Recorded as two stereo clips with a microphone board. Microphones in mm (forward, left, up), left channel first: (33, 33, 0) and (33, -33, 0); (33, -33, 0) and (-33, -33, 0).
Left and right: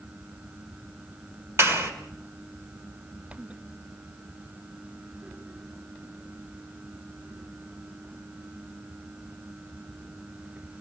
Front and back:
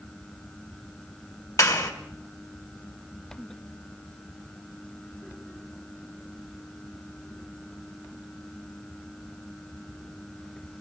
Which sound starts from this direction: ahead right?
A clap, at 1.6 s.